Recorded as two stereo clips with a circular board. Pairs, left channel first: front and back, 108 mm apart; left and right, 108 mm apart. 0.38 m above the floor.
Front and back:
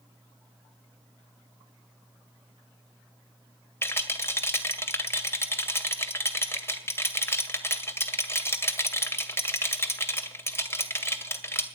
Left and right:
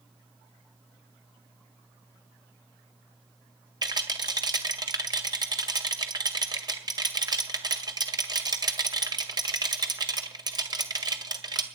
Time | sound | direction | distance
3.8 | a rattle | 60° right | 2 m